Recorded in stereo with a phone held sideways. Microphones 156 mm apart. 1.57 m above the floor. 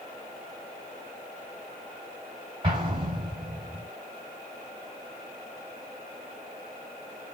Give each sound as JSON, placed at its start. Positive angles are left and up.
{"t": 2.6, "sound": "an explosion", "side_deg": -30, "distance_m": 3.0}